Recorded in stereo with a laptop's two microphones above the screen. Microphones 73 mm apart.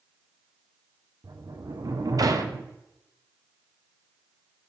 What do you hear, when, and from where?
1.2 s a sliding door: 55° right (ahead or behind), 0.6 m